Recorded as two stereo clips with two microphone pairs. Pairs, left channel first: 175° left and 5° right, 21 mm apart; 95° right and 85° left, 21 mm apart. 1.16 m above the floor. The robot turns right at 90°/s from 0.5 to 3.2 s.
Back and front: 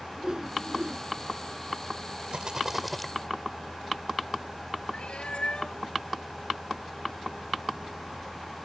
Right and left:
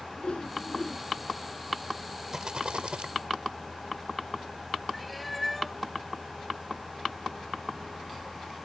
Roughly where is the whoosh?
Ahead right.